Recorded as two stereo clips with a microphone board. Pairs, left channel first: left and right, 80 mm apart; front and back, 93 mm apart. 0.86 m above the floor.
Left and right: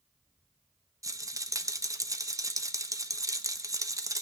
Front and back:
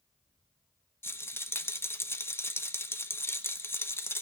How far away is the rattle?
About 1.1 m.